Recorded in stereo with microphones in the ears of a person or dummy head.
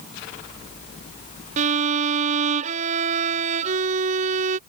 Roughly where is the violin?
Right.